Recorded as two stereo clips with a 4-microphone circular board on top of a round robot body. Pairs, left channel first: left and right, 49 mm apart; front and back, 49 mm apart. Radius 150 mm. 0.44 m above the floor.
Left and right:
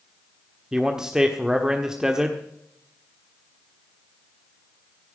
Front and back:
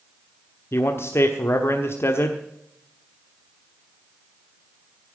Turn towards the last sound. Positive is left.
turn(degrees=-15)